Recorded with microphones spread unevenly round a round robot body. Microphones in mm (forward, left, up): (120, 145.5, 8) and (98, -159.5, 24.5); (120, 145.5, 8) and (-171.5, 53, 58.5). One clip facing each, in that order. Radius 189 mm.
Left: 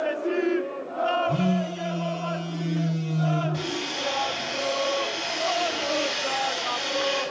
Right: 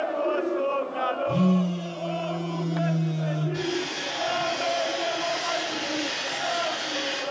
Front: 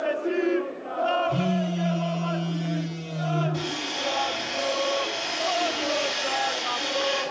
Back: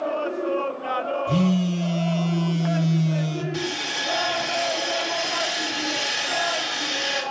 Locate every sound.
1.3 s a phone buzzing: 175° left, 1.2 m
3.5 s sawing: 175° right, 2.5 m